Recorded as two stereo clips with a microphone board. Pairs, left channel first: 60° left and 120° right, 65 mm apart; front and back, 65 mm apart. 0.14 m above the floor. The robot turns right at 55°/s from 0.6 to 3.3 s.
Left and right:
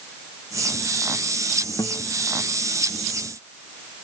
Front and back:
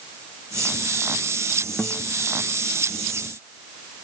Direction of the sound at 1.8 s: 75° left.